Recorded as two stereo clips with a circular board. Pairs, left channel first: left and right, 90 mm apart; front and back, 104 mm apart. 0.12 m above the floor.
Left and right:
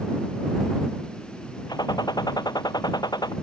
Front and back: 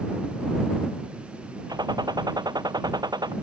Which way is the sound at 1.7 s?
130° left.